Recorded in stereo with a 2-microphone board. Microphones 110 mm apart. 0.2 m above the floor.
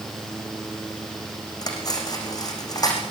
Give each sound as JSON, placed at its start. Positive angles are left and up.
{"t": 1.6, "sound": "cutlery clinking", "side_deg": 35, "distance_m": 7.0}